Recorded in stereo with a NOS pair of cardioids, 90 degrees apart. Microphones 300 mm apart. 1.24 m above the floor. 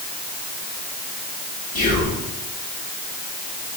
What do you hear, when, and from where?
1.8 s whispering: 60° left, 1.3 m